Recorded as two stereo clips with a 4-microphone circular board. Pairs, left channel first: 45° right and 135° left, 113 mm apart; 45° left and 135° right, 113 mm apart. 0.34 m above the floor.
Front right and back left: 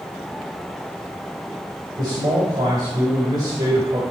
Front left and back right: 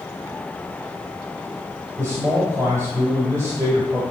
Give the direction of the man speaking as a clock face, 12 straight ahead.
6 o'clock.